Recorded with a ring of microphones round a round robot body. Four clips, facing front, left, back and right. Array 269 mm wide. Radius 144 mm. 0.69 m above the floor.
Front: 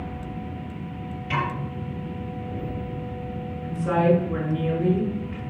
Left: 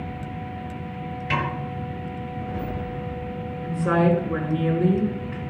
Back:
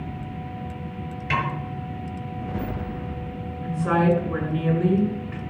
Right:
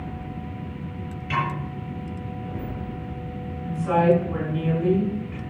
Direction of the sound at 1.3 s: 140° left.